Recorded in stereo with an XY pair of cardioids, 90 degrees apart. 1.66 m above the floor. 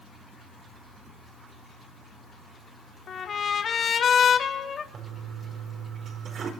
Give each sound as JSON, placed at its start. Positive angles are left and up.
{"t": 3.1, "sound": "a trumpet", "azimuth_deg": 55, "distance_m": 2.5}
{"t": 4.9, "sound": "a toilet flushing", "azimuth_deg": -65, "distance_m": 5.0}